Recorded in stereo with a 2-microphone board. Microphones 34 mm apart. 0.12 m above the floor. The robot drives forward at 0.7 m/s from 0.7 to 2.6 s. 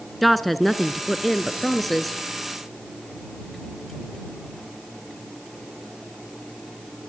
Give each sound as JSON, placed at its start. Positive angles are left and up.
{"t": 0.2, "sound": "a woman speaking", "side_deg": 0, "distance_m": 1.3}